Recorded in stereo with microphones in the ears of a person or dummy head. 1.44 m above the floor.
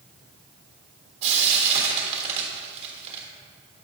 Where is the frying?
40° right (ahead or behind), 1.4 m.